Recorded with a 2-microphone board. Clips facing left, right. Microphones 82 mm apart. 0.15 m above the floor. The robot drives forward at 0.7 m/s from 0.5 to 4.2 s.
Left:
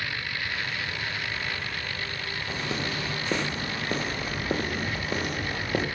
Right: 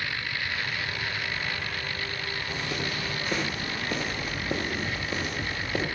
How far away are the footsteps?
About 3.5 m.